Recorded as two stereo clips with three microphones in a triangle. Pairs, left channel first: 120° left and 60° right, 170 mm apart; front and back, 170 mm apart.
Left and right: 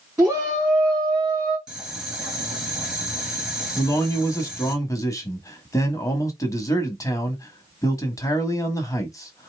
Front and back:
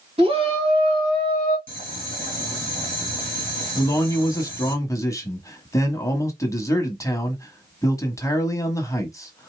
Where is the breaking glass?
No breaking glass in this recording.